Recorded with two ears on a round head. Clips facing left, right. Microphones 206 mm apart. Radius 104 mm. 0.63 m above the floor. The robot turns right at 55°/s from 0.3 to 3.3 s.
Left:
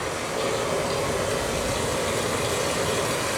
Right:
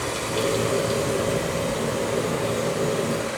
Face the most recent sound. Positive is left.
turn(degrees=115)